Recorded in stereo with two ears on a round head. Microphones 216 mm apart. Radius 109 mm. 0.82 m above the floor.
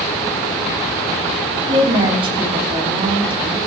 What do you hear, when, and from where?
1.7 s a woman speaking: 25° right (ahead or behind), 4.5 m